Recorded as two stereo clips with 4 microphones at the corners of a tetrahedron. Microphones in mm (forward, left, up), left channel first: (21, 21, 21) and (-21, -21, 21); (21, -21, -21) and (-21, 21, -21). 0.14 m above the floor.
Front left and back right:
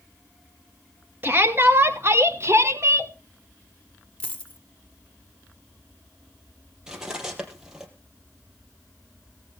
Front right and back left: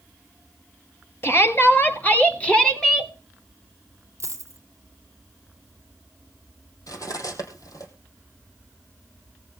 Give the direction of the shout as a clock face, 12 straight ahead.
3 o'clock.